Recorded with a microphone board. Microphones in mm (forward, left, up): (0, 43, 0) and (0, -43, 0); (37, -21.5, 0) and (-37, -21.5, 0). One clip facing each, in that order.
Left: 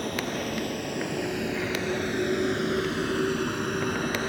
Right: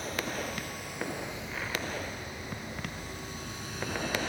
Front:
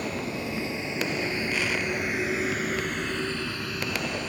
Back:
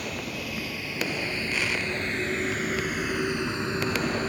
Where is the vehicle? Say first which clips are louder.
Left 5 dB, front 3 dB; 60° left; by 4.3 s 135° left.